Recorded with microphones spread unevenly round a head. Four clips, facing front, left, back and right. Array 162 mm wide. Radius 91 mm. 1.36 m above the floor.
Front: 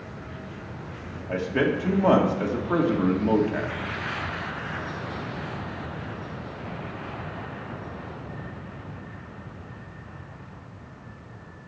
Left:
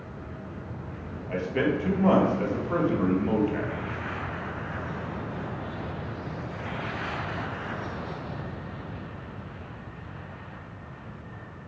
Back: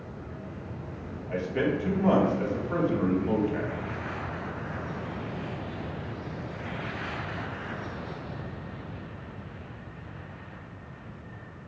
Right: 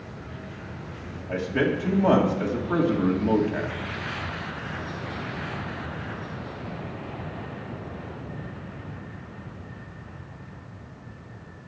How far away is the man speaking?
About 2.5 m.